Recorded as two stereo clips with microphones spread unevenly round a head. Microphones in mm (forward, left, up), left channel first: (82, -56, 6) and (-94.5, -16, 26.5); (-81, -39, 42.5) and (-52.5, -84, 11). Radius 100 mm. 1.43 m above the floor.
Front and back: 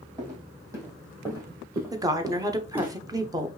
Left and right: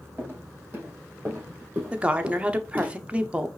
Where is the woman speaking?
120° right, 0.8 m.